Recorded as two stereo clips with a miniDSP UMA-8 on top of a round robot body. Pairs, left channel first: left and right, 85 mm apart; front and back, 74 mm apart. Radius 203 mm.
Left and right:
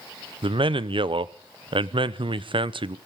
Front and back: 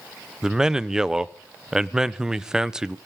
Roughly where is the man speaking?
Right.